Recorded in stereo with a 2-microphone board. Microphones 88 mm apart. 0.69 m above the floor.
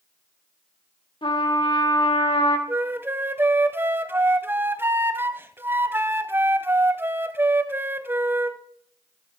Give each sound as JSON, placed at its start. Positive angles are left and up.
{"t": 1.2, "sound": "a trumpet", "side_deg": 70, "distance_m": 1.5}
{"t": 2.7, "sound": "a flute", "side_deg": -25, "distance_m": 0.6}